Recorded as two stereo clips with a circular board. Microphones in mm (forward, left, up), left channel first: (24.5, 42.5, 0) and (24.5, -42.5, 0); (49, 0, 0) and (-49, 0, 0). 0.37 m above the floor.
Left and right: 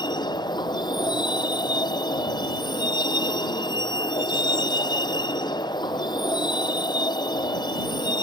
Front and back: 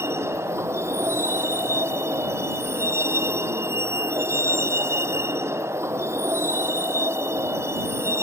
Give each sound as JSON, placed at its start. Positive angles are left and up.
{"t": 0.0, "sound": "a vehicle", "azimuth_deg": 120}